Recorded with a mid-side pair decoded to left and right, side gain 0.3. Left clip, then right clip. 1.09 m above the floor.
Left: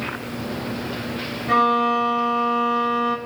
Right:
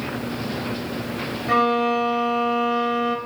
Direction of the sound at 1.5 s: 10° right.